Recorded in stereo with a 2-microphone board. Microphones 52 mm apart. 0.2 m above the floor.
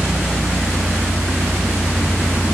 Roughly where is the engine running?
Centre.